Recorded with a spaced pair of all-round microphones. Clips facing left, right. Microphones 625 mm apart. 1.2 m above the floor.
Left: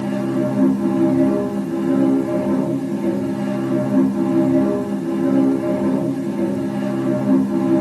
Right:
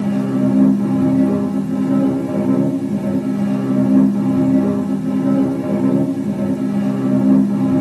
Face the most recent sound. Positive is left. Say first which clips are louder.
# right 3 dB
turn(degrees=-55)  # may be behind; listen again after turning